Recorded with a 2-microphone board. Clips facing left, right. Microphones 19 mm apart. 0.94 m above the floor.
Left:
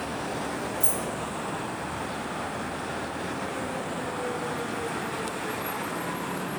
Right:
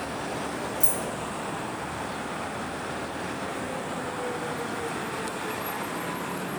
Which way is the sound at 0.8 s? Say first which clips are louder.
Even; 85° right.